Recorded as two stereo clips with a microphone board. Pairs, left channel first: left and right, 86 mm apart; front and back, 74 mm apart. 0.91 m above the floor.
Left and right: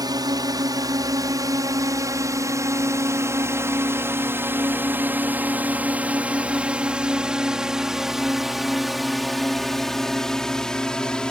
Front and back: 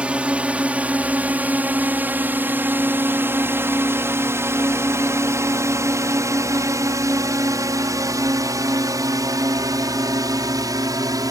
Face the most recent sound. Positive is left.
turn(degrees=170)